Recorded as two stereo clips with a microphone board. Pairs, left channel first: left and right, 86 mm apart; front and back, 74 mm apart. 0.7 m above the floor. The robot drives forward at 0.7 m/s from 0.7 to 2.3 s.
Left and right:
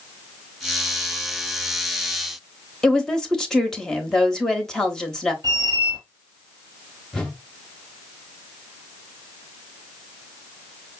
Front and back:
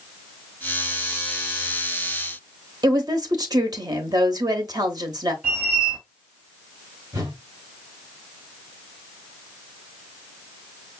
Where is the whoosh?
170° left, 0.9 m.